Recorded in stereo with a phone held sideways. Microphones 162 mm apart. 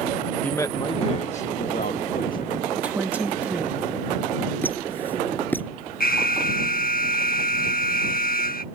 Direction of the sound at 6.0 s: 70° left (ahead or behind).